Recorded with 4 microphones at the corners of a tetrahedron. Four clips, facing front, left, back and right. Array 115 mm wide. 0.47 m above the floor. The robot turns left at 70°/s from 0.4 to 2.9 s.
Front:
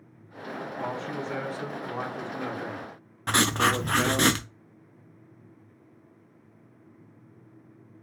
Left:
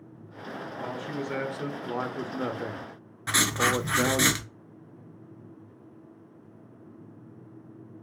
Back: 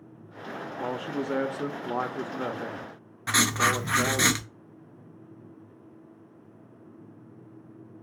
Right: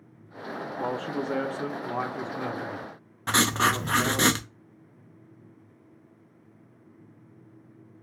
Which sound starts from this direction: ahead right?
Writing, at 3.3 s.